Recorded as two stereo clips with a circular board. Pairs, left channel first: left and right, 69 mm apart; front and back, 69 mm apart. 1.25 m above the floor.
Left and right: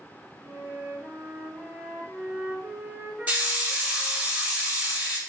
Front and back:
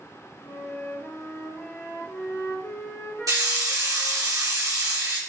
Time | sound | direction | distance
0.4 | a flute | 50° right | 1.1 m
3.3 | a hiss | 155° right | 2 m